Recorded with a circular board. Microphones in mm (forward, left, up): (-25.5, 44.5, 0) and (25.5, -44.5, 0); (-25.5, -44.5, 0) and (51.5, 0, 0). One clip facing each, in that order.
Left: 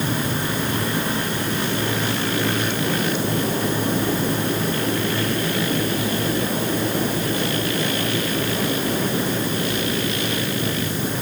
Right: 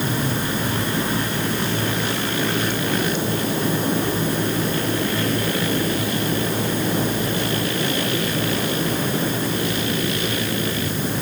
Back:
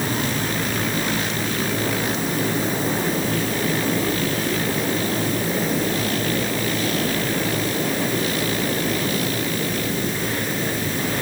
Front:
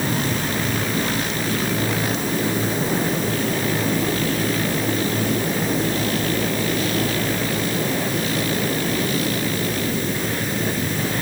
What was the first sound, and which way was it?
Only background noise.